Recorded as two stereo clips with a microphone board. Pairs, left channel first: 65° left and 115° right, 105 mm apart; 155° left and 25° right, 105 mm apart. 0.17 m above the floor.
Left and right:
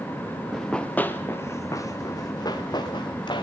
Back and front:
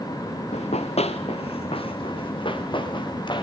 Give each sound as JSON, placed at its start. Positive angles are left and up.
{"t": 0.5, "sound": "running footsteps", "azimuth_deg": 160, "distance_m": 1.3}